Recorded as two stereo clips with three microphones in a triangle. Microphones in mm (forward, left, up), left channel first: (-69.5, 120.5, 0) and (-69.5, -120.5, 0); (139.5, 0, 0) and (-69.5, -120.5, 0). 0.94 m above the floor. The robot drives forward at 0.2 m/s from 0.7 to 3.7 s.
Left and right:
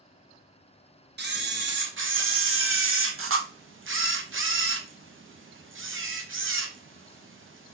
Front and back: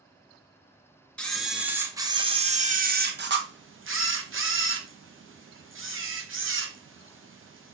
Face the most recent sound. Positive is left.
turn(degrees=-120)